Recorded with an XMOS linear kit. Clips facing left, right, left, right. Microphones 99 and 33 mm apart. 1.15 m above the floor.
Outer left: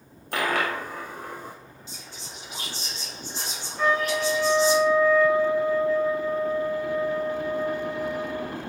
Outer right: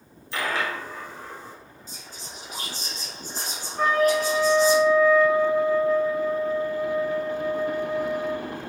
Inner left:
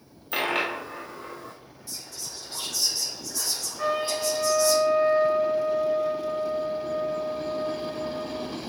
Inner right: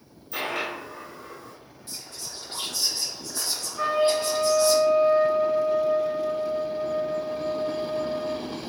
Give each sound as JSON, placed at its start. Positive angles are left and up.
{"t": 0.3, "sound": "a dropped coin", "side_deg": 55, "distance_m": 0.7}
{"t": 1.9, "sound": "whispering", "side_deg": -40, "distance_m": 1.1}
{"t": 3.8, "sound": "a trumpet", "side_deg": -50, "distance_m": 2.0}